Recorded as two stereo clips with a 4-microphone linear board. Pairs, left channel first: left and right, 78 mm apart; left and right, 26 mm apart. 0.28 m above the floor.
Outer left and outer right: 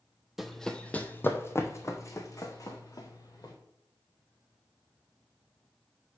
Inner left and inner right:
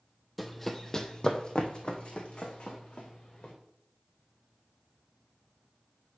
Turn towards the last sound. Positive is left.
turn(degrees=55)  # may be behind; listen again after turning